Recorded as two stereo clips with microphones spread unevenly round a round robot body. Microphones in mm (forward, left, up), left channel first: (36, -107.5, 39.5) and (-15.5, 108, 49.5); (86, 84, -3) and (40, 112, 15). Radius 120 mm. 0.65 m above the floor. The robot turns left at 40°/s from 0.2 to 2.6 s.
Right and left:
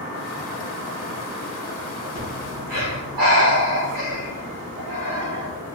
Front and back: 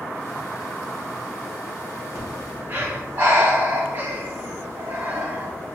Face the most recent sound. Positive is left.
turn(degrees=105)